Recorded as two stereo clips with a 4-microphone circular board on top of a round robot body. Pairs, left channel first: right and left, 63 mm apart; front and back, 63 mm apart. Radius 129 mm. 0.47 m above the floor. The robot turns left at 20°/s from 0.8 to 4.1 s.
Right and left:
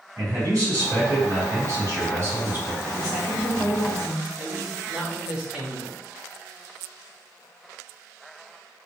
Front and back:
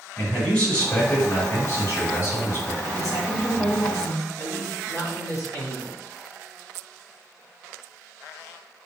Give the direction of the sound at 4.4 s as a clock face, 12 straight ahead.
12 o'clock.